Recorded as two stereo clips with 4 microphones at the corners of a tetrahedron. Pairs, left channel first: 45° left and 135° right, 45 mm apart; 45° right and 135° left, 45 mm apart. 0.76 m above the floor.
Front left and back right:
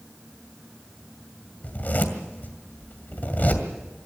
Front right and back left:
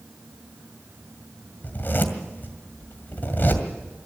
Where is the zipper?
5° right, 2 m.